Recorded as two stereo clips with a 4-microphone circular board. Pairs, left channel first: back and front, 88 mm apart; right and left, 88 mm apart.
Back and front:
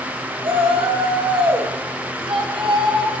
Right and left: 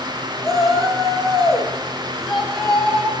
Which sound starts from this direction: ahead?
A shout, at 0.4 s.